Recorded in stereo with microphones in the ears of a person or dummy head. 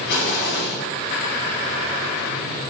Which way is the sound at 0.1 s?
55° left (ahead or behind).